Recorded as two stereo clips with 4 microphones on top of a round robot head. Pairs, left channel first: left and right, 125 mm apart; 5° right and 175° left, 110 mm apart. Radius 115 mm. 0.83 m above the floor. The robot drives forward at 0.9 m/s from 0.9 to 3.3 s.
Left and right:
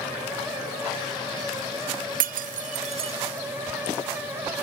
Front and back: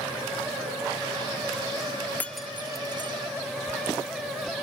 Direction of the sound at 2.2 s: 85° right.